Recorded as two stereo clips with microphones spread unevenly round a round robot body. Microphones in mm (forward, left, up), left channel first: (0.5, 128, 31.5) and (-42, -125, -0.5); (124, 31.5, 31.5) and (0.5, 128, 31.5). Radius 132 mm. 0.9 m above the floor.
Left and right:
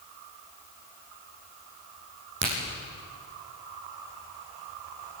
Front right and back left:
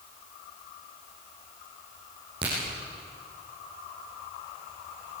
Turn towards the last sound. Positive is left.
turn(degrees=-145)